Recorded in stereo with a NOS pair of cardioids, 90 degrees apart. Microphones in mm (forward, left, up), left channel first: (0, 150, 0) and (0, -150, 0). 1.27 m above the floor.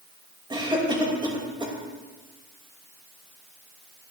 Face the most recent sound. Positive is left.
turn(degrees=-15)